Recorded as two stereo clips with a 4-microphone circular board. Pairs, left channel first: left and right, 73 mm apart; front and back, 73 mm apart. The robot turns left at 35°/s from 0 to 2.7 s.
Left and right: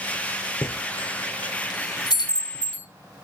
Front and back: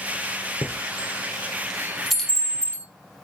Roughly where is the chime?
Behind left.